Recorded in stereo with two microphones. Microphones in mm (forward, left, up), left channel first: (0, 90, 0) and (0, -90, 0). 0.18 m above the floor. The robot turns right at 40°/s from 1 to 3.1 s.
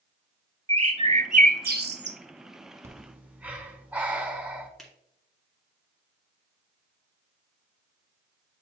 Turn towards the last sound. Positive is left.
turn(degrees=0)  # may be behind; listen again after turning